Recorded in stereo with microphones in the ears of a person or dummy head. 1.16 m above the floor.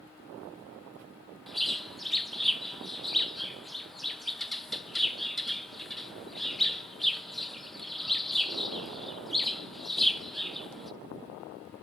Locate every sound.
1.5 s a bird: centre (ahead or behind), 0.9 m